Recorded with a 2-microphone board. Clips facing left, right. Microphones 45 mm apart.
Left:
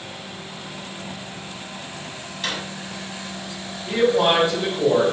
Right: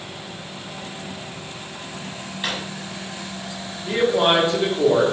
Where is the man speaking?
35° right (ahead or behind), 0.9 m.